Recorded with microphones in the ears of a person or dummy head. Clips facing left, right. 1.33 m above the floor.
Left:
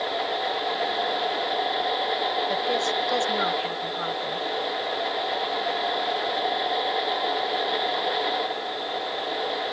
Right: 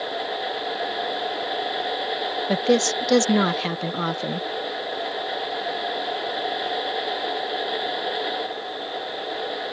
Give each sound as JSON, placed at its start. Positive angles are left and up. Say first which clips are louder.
{"t": 2.5, "sound": "a woman speaking", "louder": "right 6 dB", "side_deg": -70}